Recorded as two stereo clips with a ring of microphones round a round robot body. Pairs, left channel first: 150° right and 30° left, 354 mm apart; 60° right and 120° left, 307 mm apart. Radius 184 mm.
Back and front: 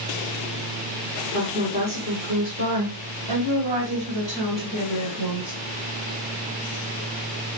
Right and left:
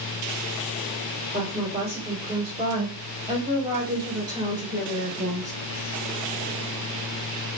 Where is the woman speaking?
70° left, 1.6 m; by 5.5 s 45° left, 3.5 m.